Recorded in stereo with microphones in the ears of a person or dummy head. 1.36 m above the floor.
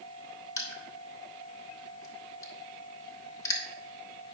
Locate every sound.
0.6 s crushing: 20° left (ahead or behind), 1.8 m